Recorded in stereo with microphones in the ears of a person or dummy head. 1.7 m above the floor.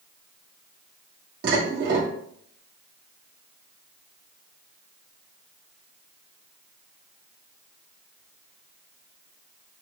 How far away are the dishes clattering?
About 1.7 m.